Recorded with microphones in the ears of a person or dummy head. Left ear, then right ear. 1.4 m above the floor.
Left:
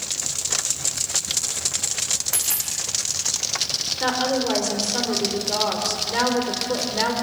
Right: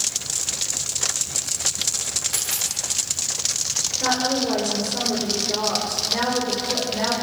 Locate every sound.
2.3 s a dropped coin: 25° left (ahead or behind), 5.5 m
4.0 s a woman speaking: 55° left (ahead or behind), 5 m